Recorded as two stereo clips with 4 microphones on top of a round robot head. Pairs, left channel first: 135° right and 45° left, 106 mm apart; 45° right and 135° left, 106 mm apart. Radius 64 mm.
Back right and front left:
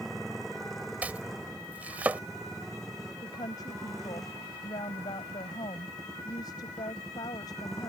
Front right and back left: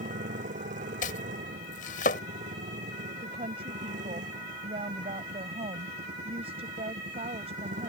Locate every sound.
0.0 s a motorcycle: 135° left
1.0 s chopping: 35° right
3.2 s a woman speaking: 170° left